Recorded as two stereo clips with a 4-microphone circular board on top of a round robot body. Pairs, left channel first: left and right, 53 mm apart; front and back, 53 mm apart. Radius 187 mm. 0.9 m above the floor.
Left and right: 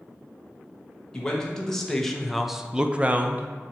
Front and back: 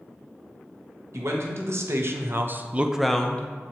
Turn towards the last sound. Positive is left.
turn(degrees=-45)